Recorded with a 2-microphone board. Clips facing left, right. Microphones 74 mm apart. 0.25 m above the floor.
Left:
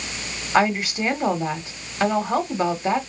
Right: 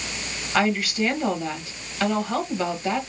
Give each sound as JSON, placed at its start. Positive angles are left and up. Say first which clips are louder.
{"t": 0.5, "sound": "a woman speaking", "louder": "left 3 dB", "side_deg": 25, "distance_m": 1.2}